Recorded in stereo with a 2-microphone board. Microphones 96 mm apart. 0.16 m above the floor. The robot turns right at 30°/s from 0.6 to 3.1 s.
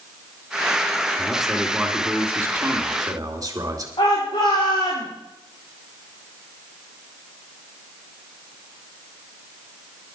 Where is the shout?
65° left (ahead or behind), 5 m.